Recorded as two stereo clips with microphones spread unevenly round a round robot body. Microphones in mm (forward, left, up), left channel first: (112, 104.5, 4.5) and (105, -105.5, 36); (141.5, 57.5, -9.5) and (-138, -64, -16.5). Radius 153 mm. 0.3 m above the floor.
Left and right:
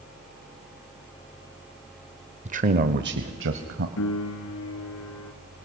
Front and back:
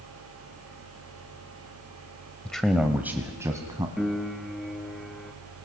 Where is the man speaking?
60° right, 0.9 m; by 3.9 s 80° right, 1.7 m.